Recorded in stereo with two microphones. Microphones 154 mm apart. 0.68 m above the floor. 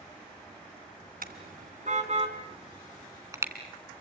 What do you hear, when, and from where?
1.2 s a car horn: 70° right (ahead or behind), 2.5 m; by 3.5 s 20° right (ahead or behind), 3 m